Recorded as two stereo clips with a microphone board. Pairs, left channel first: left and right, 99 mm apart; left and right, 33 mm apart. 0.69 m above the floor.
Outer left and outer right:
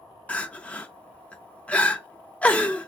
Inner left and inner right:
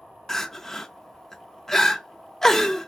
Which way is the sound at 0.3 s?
15° left (ahead or behind).